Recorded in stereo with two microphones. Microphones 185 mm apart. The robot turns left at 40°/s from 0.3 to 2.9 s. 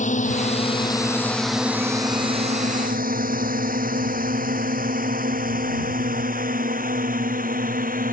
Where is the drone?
45° left (ahead or behind); by 8.1 s 55° right (ahead or behind).